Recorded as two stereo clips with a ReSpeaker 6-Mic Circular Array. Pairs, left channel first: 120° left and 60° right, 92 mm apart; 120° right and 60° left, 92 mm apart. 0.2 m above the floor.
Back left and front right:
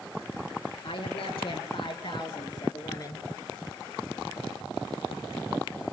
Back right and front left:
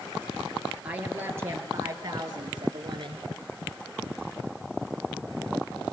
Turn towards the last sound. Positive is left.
turn(degrees=75)